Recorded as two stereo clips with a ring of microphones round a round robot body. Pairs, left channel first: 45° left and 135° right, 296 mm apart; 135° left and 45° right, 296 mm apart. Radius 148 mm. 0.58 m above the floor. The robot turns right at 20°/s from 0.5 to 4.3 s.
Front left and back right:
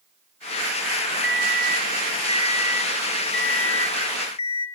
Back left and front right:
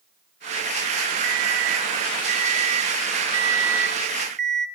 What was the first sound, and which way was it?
An alarm clock, 50° right.